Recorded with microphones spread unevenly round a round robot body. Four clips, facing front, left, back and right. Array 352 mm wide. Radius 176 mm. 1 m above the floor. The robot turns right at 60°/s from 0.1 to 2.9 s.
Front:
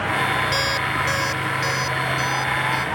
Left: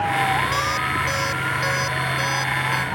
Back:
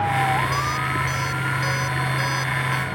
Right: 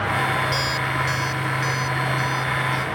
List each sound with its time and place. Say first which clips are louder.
0.5 s an alarm clock: left 1 dB, front 1 dB; straight ahead; by 2.9 s 140° left